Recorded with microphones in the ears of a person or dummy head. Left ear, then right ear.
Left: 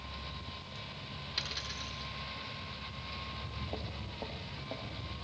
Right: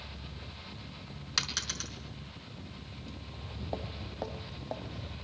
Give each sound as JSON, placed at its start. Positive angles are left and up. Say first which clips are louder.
{"t": 1.4, "sound": "a dropped coin", "louder": "right 6 dB", "side_deg": -45, "distance_m": 5.0}
{"t": 3.3, "sound": "footsteps", "louder": "even", "side_deg": -60, "distance_m": 3.0}